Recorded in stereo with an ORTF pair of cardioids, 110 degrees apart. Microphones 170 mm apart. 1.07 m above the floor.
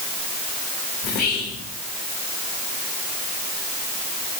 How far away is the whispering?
About 1.0 m.